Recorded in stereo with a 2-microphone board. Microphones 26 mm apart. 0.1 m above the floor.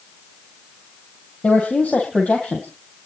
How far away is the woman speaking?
About 2.5 m.